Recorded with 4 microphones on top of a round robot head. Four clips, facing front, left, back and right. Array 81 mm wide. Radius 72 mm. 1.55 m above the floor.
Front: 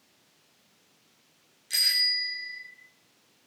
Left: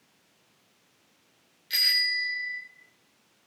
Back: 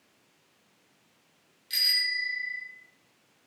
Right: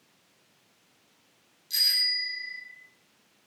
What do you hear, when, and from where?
1.7 s a bicycle bell: 65° left, 4.5 m